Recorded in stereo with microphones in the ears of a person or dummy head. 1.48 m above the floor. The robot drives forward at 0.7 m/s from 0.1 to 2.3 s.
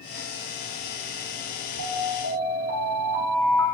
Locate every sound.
1.8 s an alarm: 75° right (ahead or behind), 2.5 m; by 3.6 s 70° right (ahead or behind), 2.5 m